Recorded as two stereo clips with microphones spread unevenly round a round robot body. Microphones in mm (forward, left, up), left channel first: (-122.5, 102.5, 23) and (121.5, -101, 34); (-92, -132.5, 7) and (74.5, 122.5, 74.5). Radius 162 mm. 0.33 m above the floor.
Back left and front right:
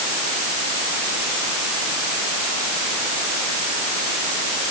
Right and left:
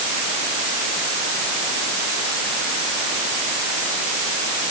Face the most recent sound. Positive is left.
No sound to turn to.